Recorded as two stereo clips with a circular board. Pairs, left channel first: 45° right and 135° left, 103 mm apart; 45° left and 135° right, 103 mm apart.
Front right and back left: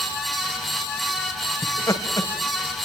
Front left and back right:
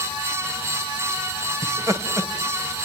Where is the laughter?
85° right, 2 m.